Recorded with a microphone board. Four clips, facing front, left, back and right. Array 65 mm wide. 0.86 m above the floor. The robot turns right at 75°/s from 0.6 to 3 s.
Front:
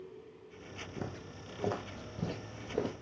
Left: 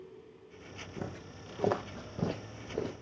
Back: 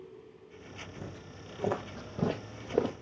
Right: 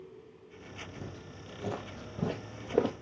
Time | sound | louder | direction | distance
1.0 | footsteps | left 3 dB, front 2 dB | 35° left | 2.0 m